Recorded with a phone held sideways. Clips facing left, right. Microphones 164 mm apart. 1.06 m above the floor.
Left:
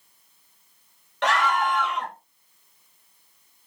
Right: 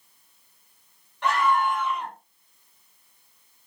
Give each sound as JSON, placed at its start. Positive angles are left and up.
{"t": 1.2, "sound": "a scream", "side_deg": 80, "distance_m": 1.7}